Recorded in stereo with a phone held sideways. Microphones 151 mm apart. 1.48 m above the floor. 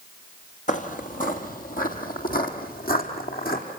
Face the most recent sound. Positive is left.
turn(degrees=75)  # may be behind; listen again after turning